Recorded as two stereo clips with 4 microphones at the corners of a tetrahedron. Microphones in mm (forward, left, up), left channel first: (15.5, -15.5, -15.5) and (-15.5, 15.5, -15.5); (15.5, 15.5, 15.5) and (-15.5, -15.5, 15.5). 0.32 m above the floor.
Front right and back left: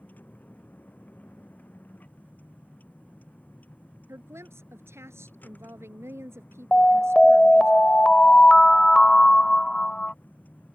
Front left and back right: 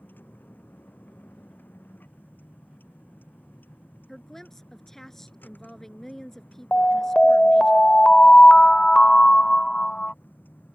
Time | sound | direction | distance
0.0 | a vehicle | 5° left | ?
4.1 | a woman speaking | 130° left | ?
6.7 | an alarm | 5° left | ?